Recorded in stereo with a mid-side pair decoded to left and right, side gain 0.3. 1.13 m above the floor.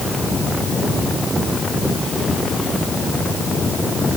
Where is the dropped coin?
No dropped coin in this recording.